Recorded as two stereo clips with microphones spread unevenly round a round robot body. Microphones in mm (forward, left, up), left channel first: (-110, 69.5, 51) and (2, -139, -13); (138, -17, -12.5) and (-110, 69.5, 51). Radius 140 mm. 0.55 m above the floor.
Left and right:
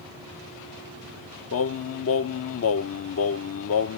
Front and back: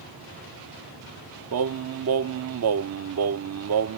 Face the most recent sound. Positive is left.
turn(degrees=140)